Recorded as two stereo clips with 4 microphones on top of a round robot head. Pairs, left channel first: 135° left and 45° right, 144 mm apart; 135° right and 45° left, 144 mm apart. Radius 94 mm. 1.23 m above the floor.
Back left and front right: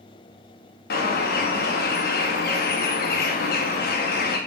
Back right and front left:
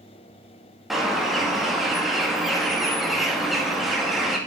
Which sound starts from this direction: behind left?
A bird, at 0.9 s.